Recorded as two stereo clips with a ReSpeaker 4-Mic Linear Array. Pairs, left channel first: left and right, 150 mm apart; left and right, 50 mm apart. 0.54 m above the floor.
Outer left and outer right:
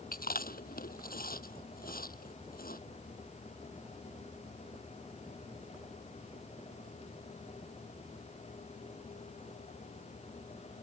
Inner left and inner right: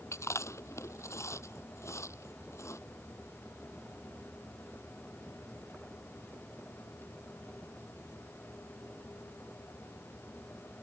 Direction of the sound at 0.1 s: 75° left (ahead or behind).